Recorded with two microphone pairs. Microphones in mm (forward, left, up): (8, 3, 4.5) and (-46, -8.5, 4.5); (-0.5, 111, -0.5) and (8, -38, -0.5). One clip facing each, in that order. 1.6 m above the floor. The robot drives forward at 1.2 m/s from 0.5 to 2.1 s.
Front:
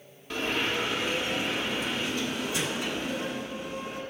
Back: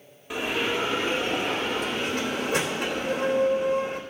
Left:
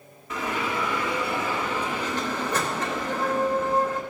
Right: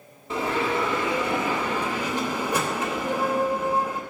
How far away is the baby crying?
I don't hear a baby crying.